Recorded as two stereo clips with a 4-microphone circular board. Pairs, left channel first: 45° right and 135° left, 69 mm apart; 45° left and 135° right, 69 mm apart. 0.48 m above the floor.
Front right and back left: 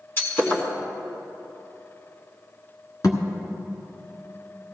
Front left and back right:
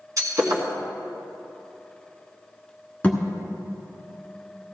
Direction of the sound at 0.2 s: 100° right.